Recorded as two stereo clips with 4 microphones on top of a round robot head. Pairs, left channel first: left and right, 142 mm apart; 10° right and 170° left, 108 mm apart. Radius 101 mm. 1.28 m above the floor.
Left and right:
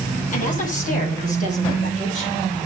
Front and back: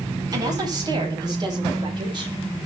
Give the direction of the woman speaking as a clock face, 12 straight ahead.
8 o'clock.